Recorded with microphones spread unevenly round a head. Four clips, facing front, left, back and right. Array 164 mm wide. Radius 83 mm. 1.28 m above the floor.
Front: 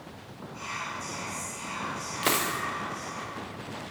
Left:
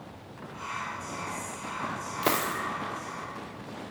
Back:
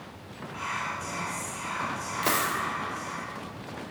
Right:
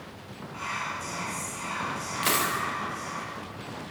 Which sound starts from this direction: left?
A dropped coin, at 2.2 s.